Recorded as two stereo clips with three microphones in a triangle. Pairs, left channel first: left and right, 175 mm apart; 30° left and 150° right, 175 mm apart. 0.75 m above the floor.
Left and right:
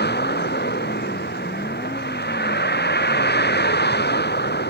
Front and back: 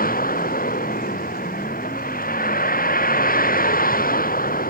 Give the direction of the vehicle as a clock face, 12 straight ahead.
10 o'clock.